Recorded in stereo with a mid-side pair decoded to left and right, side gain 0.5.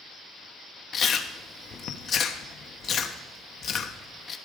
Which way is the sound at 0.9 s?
55° left.